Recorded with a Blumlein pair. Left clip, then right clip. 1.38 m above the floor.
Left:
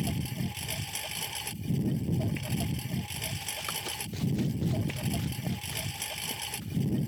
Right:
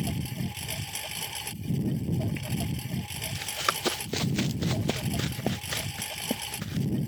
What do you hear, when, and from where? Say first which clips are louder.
0.0 s a lawn mower: right 1 dB; straight ahead
3.4 s running footsteps: right 11 dB; 55° right